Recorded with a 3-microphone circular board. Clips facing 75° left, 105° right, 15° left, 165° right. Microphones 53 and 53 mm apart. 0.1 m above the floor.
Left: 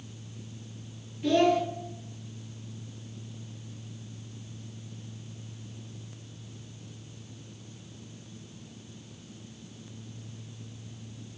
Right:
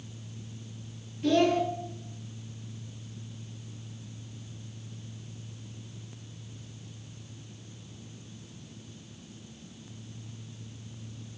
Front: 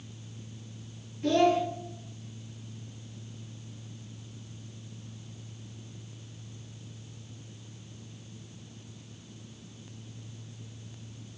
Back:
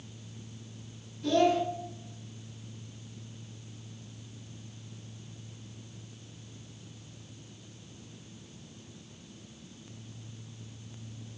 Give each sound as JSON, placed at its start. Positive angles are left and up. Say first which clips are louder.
{"t": 1.2, "sound": "a child speaking", "louder": "left 1 dB, front 1 dB", "azimuth_deg": -5, "distance_m": 1.2}